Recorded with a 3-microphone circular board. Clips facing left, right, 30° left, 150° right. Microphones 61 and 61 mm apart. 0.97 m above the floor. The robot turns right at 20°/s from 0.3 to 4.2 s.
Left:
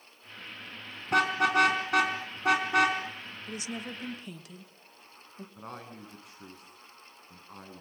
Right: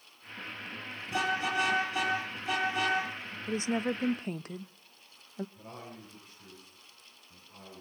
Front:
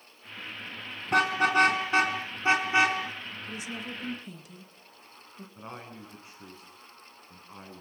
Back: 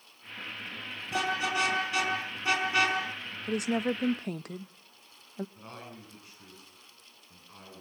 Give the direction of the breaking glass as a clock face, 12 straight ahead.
No breaking glass in this recording.